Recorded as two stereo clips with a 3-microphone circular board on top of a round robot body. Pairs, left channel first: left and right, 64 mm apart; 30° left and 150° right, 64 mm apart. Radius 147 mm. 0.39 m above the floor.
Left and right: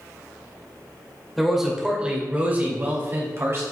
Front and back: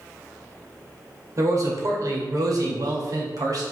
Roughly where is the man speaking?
Behind.